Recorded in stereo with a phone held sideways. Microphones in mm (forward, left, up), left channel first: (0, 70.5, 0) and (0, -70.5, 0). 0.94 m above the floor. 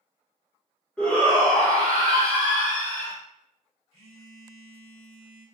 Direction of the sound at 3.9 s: 45° right (ahead or behind).